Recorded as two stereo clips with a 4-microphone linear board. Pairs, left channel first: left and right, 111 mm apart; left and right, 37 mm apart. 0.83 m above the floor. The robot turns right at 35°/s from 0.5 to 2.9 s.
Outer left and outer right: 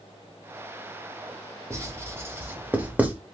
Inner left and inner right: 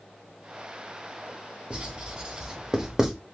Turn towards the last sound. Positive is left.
turn(degrees=-15)  # may be behind; listen again after turning